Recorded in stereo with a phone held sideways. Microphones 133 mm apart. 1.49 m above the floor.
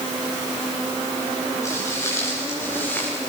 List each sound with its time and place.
1.6 s footsteps: 25° left (ahead or behind), 9 m; by 3.1 s 15° left (ahead or behind), 9 m